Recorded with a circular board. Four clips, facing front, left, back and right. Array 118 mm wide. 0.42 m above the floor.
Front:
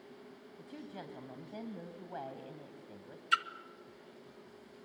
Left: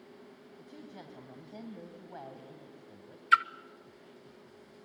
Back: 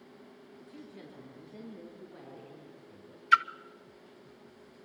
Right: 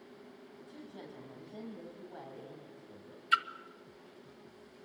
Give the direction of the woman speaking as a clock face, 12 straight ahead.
11 o'clock.